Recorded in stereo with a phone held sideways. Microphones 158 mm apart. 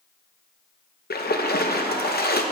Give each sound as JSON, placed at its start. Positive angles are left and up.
{"t": 1.1, "sound": "a splash", "side_deg": 80, "distance_m": 0.5}